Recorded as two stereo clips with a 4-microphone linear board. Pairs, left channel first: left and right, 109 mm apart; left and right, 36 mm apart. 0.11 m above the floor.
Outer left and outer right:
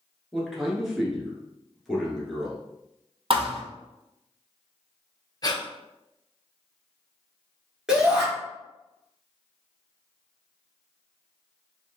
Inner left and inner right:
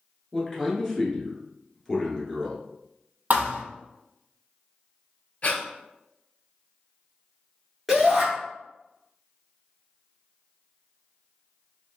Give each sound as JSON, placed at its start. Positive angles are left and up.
{"t": 0.3, "sound": "a man speaking", "side_deg": 0, "distance_m": 1.2}
{"t": 3.3, "sound": "a thud", "side_deg": -55, "distance_m": 0.6}
{"t": 5.4, "sound": "breathing", "side_deg": 35, "distance_m": 0.6}
{"t": 7.9, "sound": "a shout", "side_deg": -5, "distance_m": 1.5}